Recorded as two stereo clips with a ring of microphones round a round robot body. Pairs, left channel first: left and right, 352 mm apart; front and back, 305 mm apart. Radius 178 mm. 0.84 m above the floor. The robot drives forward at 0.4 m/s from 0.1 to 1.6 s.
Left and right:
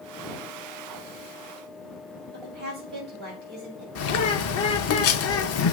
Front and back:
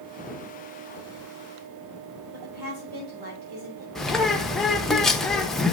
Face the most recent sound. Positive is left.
turn(degrees=90)